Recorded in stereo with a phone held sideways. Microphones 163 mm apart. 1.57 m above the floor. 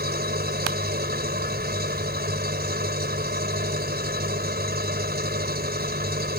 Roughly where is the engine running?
Right.